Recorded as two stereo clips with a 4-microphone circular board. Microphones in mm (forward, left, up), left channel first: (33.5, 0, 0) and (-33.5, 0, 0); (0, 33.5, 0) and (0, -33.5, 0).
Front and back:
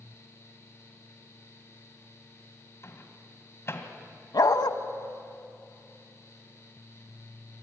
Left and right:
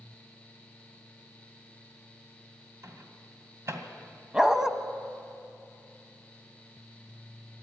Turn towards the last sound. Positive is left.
turn(degrees=-10)